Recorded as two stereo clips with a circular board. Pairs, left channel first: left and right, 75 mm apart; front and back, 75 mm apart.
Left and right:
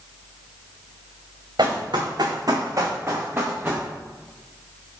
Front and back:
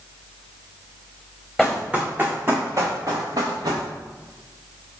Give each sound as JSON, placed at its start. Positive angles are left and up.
{"t": 1.6, "sound": "running footsteps", "azimuth_deg": -95, "distance_m": 1.2}